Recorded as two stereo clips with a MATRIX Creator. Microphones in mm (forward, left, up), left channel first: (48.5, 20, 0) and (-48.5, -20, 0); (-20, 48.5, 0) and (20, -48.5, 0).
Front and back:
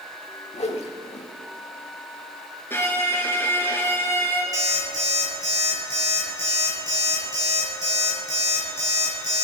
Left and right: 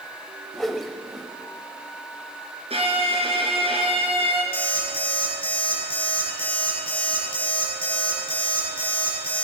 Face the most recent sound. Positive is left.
turn(degrees=150)